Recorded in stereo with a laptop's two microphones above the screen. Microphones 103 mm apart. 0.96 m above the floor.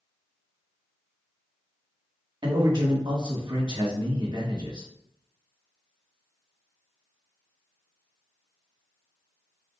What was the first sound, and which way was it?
A man speaking, 50° right (ahead or behind).